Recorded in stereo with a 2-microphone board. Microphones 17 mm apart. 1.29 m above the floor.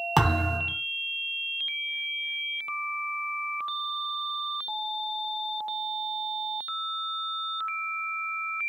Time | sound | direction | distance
0.2 | a thud | centre (ahead or behind) | 1.1 m